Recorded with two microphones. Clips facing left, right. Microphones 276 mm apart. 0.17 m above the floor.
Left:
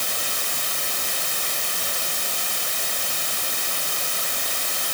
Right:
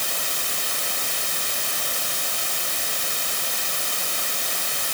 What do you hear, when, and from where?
Only background noise.